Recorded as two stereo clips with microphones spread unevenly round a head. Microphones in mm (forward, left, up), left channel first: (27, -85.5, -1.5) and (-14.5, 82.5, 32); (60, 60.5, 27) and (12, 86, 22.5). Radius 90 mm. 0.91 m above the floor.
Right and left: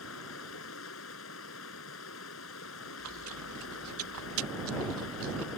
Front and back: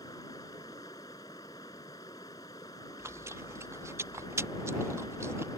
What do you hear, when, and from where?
0.0 s running water: 85° right
3.0 s chewing: 115° left